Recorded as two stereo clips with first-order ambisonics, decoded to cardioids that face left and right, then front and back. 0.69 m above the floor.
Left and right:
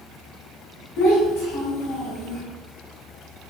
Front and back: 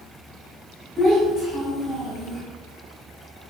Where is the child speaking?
75° left, 1.8 m.